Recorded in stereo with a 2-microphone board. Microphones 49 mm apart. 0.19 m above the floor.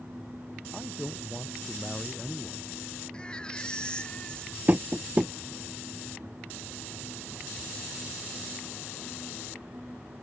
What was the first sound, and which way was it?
A man speaking, centre (ahead or behind).